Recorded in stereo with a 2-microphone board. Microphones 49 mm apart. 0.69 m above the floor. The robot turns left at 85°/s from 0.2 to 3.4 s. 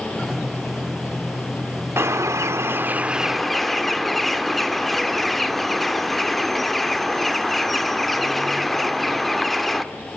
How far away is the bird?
About 0.9 m.